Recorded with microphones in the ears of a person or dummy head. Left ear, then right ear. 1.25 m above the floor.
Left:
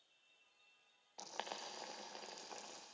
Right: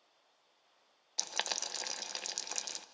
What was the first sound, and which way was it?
Boiling, 75° right (ahead or behind).